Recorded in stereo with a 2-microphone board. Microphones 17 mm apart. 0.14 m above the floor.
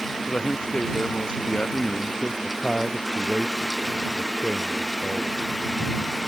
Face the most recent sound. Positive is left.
turn(degrees=-10)  # may be behind; listen again after turning